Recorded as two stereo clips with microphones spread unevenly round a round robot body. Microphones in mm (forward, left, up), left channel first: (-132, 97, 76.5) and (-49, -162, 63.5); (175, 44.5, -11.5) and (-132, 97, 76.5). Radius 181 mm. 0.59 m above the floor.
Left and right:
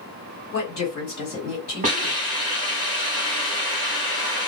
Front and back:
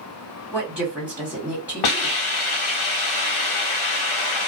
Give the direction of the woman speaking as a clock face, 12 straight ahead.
10 o'clock.